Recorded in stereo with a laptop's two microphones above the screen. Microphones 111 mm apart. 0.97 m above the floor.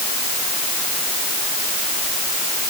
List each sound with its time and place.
Only background noise.